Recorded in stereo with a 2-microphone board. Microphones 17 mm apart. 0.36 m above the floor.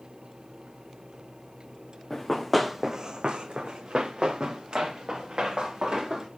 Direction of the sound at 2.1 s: 15° left (ahead or behind).